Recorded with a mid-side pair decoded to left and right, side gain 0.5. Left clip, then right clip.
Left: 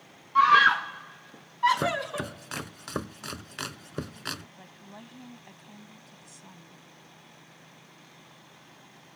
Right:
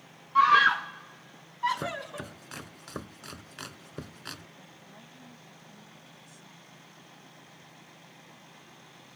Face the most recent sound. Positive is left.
turn(degrees=45)